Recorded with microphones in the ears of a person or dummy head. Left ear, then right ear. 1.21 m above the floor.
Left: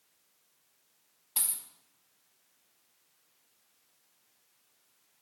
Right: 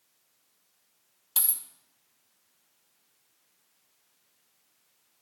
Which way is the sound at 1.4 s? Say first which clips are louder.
Right 3 dB; 25° right (ahead or behind).